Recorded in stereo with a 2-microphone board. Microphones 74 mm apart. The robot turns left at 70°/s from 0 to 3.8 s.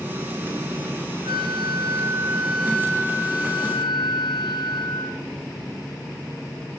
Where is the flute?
80° right, 2.5 m; by 5.2 s 100° left, 2.5 m.